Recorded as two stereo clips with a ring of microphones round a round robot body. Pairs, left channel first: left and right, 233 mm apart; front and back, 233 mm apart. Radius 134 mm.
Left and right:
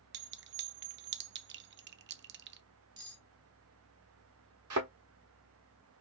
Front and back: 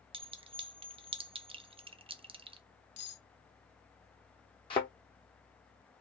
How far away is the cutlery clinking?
About 1.2 m.